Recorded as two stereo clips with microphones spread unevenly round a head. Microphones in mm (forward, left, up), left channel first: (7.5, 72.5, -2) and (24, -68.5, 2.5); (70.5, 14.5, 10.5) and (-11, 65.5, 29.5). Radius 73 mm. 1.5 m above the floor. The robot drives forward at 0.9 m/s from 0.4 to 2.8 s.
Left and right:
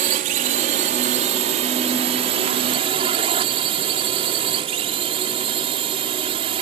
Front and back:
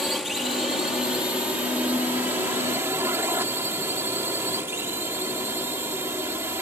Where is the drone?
125° right; by 6.6 s 140° right.